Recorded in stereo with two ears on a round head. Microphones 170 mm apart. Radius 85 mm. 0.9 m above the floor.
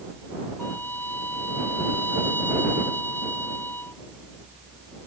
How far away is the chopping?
No chopping in this recording.